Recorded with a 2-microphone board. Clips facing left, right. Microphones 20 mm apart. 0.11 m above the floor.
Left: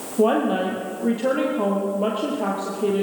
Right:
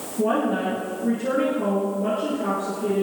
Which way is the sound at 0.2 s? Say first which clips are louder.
Left 3 dB; 65° left (ahead or behind).